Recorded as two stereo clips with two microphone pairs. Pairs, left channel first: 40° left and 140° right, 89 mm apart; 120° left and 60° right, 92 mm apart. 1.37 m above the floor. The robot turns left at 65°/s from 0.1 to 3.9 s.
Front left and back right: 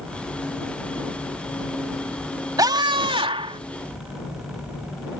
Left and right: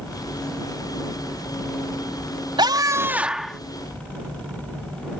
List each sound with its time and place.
2.6 s a scream: 90° right; by 3.6 s 160° right